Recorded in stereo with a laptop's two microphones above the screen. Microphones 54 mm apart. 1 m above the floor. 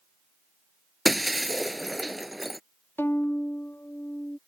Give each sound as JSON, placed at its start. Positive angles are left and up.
{"t": 1.1, "sound": "breaking glass", "side_deg": 0}
{"t": 3.0, "sound": "a violin", "side_deg": 35}